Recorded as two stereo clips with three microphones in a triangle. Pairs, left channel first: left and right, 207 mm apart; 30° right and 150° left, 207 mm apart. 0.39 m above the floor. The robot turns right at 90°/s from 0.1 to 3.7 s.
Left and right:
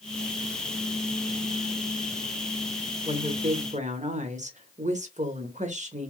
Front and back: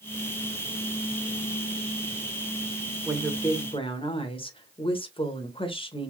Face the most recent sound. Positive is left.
turn(degrees=-75)